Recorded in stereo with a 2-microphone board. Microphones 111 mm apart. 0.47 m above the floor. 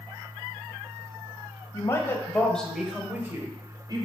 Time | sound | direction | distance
1.7 | a woman speaking | 30° left (ahead or behind) | 2 m